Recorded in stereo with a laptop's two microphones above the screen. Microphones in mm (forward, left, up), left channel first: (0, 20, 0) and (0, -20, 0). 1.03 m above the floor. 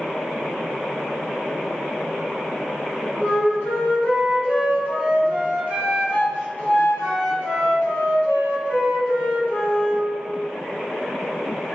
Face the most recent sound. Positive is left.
turn(degrees=55)  # may be behind; listen again after turning